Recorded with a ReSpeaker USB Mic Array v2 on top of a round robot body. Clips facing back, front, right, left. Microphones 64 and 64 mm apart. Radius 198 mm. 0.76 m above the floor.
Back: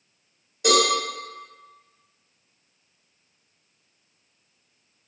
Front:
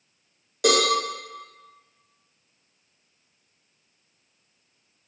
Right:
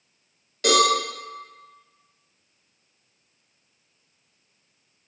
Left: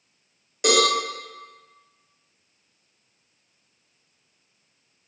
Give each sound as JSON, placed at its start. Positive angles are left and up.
{"t": 0.6, "sound": "a cowbell", "azimuth_deg": 15, "distance_m": 0.8}